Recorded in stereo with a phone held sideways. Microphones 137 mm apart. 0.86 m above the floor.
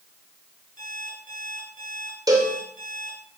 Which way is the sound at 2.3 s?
25° right (ahead or behind).